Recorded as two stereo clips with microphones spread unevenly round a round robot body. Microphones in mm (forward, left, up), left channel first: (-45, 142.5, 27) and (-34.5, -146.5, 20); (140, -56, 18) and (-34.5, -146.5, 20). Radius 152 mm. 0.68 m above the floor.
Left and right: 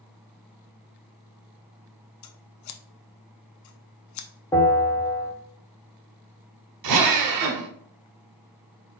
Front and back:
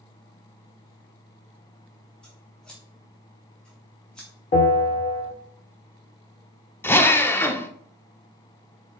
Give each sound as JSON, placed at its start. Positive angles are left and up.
{"t": 2.2, "sound": "scissors", "azimuth_deg": 115, "distance_m": 0.6}
{"t": 4.5, "sound": "a bell", "azimuth_deg": 20, "distance_m": 1.1}
{"t": 6.8, "sound": "a drill", "azimuth_deg": -55, "distance_m": 0.7}